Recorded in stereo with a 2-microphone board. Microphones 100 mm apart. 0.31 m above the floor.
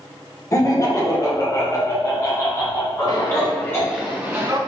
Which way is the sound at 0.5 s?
35° left (ahead or behind).